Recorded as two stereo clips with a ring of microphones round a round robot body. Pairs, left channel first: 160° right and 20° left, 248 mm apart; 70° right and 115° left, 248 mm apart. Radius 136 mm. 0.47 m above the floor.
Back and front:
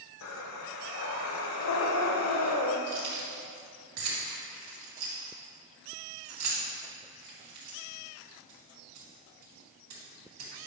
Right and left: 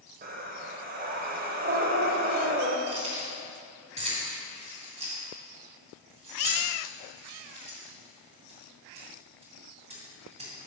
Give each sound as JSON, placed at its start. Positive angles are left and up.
{"t": 0.2, "sound": "breathing", "azimuth_deg": 170, "distance_m": 0.7}
{"t": 2.9, "sound": "keys jangling", "azimuth_deg": 45, "distance_m": 2.5}